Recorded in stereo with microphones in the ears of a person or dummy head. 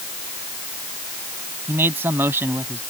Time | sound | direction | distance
1.7 | a man speaking | 10° right (ahead or behind) | ?